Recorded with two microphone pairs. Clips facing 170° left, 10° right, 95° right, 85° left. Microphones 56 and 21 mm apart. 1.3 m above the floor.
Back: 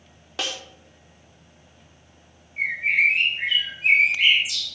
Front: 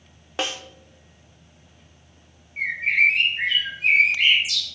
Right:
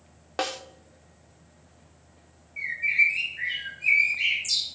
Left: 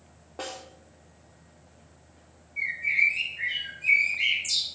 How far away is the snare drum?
About 0.6 m.